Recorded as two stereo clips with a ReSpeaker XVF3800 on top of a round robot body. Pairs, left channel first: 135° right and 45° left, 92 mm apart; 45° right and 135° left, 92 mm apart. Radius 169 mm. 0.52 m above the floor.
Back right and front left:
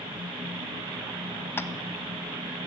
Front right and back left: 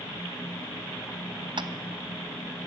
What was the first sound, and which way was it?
Tapping, 160° left.